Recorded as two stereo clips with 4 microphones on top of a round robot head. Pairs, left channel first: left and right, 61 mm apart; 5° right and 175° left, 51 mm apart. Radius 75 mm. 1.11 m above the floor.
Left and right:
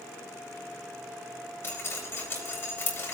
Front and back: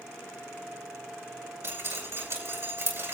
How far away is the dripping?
About 8 m.